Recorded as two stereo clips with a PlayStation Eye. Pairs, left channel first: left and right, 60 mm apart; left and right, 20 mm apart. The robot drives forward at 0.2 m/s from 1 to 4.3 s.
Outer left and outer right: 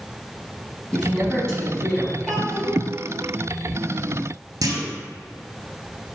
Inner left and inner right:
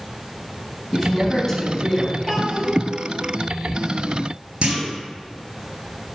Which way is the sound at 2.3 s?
Centre (ahead or behind).